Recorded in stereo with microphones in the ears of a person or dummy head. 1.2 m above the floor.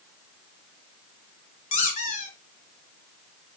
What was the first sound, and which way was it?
A squeak, 40° left (ahead or behind).